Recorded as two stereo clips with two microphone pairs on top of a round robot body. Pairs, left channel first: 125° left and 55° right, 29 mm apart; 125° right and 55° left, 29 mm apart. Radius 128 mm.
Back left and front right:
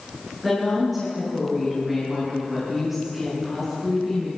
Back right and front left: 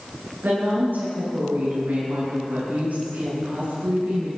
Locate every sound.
0.4 s a woman speaking: 35° left, 9.5 m